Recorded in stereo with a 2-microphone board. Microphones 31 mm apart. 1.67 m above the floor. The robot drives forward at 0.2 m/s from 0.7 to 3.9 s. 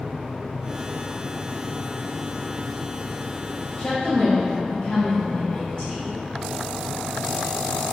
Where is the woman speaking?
35° left (ahead or behind), 0.9 m.